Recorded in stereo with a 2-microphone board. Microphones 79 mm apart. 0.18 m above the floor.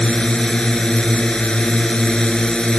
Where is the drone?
10° left (ahead or behind).